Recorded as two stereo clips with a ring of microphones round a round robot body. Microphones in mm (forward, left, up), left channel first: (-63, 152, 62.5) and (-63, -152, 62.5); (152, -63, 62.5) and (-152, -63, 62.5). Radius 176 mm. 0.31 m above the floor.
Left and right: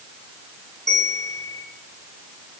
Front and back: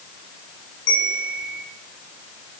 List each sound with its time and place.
0.9 s a bell: straight ahead, 4.5 m